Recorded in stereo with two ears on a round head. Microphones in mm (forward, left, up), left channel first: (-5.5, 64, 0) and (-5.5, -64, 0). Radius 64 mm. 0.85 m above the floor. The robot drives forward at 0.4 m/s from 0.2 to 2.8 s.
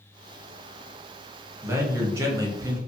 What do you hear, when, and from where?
1.6 s a man speaking: 15° right (ahead or behind), 0.7 m; by 2.8 s 20° right (ahead or behind), 0.6 m